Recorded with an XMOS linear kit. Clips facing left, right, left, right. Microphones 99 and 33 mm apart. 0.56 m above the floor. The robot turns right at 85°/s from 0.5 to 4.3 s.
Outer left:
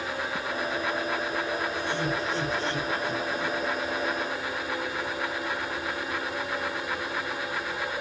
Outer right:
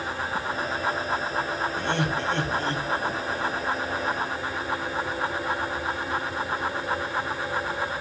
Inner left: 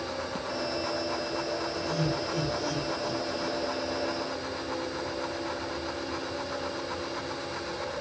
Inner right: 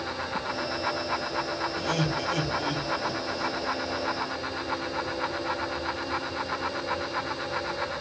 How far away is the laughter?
About 4 m.